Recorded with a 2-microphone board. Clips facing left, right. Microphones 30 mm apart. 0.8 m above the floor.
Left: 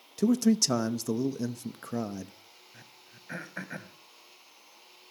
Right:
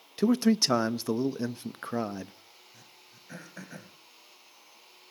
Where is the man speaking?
30° right (ahead or behind), 0.7 m.